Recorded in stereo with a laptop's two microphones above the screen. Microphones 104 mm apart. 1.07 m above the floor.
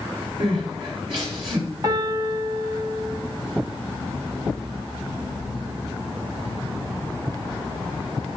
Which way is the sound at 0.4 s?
55° right (ahead or behind).